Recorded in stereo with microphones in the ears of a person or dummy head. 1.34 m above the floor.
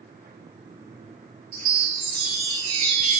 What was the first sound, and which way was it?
A chime, 35° right (ahead or behind).